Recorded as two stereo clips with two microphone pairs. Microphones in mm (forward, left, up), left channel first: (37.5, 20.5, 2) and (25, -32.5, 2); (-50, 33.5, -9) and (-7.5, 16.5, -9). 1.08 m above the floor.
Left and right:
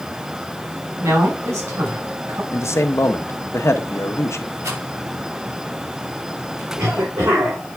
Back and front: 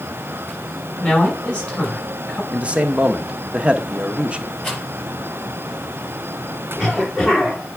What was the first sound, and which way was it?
A man speaking, 135° right.